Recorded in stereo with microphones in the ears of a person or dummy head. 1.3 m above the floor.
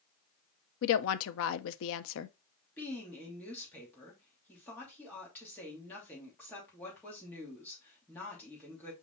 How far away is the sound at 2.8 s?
About 3 m.